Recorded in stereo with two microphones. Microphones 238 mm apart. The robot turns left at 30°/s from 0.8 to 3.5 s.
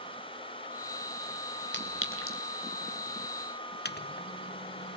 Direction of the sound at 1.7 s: 50° left (ahead or behind).